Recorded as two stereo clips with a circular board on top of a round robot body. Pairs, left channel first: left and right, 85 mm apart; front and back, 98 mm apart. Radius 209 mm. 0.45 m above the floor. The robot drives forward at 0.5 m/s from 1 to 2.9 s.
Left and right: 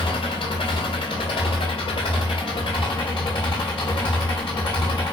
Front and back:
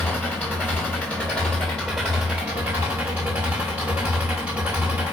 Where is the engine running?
75° left, 1.7 m; by 5.1 s 110° left, 1.7 m.